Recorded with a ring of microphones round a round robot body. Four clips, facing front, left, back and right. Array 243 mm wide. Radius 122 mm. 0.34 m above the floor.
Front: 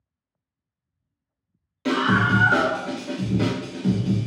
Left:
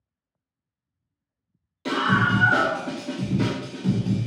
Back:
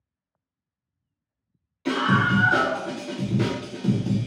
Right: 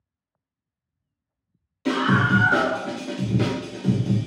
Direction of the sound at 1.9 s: 15° left.